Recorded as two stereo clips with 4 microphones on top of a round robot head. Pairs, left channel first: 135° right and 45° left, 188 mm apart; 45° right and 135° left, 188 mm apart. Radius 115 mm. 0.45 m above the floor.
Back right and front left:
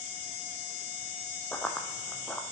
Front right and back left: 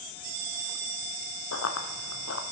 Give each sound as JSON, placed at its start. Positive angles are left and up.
{"t": 1.5, "sound": "running footsteps", "azimuth_deg": -50, "distance_m": 0.8}